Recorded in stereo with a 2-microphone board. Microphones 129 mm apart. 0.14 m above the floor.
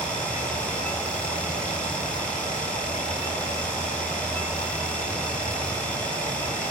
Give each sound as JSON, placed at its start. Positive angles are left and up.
{"t": 0.0, "sound": "running water", "side_deg": 70, "distance_m": 9.0}